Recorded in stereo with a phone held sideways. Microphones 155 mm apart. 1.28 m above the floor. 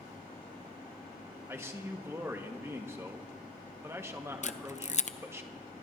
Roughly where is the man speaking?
Centre.